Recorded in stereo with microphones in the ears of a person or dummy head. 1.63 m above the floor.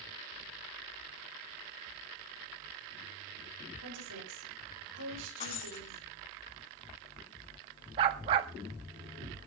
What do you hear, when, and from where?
3.8 s a woman speaking: 75° right (ahead or behind), 6.5 m; by 6.0 s 65° right (ahead or behind), 8 m
5.4 s breaking glass: 30° left (ahead or behind), 7 m
8.0 s a dog barking: 30° right (ahead or behind), 1.2 m